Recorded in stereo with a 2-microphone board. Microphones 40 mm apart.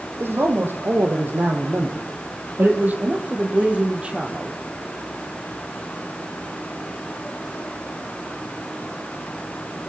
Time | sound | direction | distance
0.2 | a man speaking | 75° right (ahead or behind) | 4.5 m